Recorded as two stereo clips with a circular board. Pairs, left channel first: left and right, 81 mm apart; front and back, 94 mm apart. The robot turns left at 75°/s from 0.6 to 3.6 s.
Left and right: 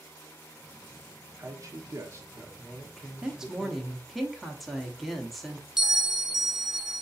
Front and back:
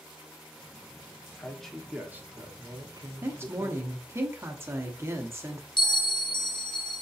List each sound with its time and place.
1.4 s a man speaking: 65° right, 0.8 m; by 3.9 s 130° left, 0.8 m
3.2 s a woman speaking: 150° right, 0.8 m; by 5.7 s straight behind, 0.8 m
5.8 s a bell: 10° right, 0.7 m